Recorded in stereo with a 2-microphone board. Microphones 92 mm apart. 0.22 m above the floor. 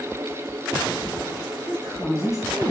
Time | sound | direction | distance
1.7 | a woman speaking | 35° left (ahead or behind) | 1.7 m